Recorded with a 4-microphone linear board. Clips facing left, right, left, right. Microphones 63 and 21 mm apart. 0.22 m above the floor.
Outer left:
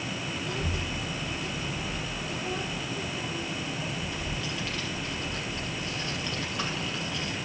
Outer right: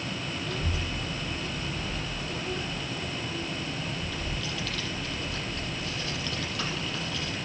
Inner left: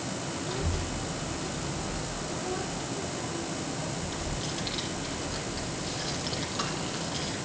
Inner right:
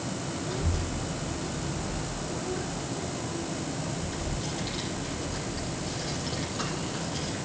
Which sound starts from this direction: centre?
A child speaking, at 0.4 s.